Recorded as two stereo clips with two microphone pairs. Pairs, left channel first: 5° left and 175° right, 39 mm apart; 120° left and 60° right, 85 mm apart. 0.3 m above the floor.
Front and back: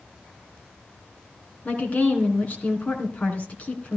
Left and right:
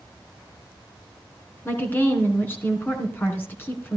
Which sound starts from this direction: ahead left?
A woman speaking, at 1.6 s.